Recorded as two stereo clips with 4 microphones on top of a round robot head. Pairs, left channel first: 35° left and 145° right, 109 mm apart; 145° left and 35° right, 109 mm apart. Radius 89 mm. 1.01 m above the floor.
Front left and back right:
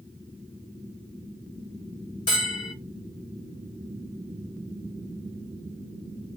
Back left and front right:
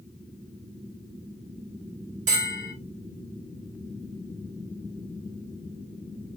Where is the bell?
15° right, 1.6 m.